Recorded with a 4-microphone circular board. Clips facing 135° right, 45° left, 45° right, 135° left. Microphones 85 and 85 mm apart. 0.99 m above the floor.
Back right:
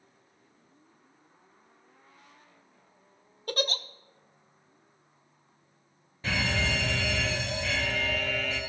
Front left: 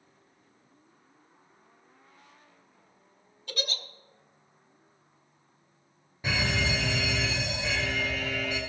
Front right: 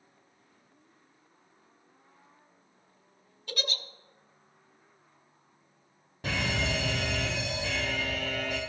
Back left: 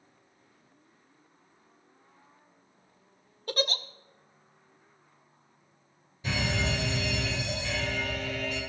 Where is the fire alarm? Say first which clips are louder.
Even, even; 30° right, 4 m.